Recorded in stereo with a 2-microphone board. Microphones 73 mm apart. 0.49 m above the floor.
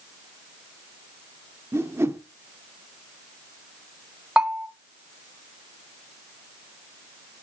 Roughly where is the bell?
Centre.